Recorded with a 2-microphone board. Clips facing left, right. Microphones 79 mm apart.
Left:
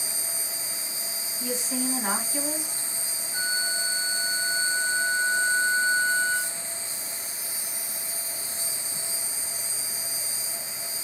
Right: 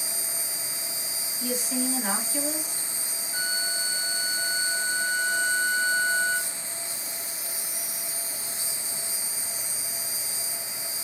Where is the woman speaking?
25° left (ahead or behind), 1.6 m.